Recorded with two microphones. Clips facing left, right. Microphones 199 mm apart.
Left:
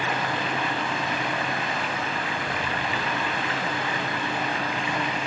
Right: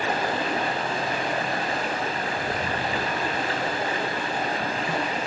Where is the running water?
35° right (ahead or behind), 4.5 m.